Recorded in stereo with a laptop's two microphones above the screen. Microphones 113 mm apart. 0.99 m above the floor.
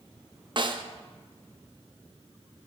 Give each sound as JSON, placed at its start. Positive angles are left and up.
{"t": 0.6, "sound": "a snare drum", "side_deg": -45, "distance_m": 0.6}